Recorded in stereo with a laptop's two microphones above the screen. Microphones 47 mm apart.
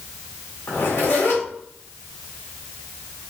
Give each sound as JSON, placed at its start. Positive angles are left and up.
{"t": 0.7, "sound": "a zipper", "side_deg": 70, "distance_m": 2.0}